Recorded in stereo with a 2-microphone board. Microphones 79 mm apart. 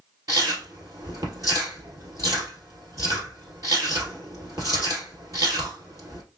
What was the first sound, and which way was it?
Chewing, 45° right (ahead or behind).